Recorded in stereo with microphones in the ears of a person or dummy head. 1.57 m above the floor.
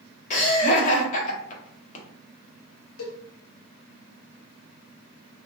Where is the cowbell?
75° left (ahead or behind), 0.9 m.